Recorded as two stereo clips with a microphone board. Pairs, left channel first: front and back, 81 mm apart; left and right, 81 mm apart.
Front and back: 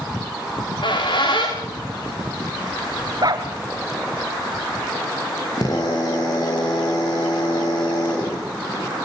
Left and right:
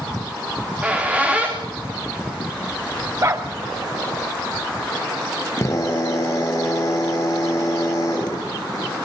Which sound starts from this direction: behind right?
A dog barking, at 3.2 s.